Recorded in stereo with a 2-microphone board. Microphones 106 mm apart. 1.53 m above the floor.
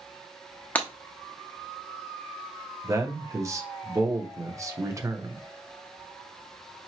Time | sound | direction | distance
0.8 | breaking glass | 15° left (ahead or behind) | 0.9 m
2.8 | a man speaking | 30° right (ahead or behind) | 0.9 m